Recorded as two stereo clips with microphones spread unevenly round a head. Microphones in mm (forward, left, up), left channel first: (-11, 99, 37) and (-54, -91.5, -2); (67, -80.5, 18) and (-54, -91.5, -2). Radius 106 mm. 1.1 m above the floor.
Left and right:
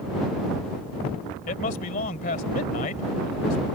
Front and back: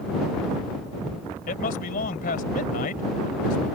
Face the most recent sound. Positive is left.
turn(degrees=20)